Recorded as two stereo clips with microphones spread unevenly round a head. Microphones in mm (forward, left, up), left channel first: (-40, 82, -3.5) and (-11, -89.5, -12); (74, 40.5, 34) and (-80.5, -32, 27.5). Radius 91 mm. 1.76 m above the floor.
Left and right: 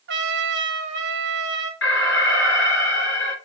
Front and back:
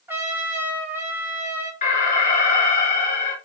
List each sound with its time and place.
0.1 s a trumpet: 75° right, 1.4 m
1.8 s an alarm: 70° left, 3.5 m